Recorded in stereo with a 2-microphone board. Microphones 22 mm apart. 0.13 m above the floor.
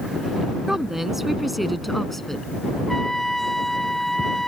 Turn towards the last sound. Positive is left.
turn(degrees=25)  # may be behind; listen again after turning